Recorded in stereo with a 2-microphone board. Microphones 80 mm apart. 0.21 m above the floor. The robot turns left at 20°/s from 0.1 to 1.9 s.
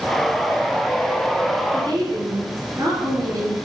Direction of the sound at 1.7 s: 45° right (ahead or behind).